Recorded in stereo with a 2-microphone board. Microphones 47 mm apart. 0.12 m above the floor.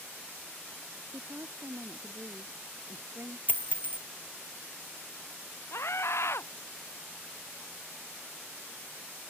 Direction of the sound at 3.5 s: 35° left (ahead or behind).